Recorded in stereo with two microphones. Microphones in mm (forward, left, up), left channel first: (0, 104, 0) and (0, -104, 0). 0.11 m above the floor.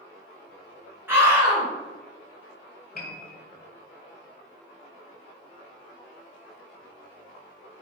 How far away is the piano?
About 0.6 m.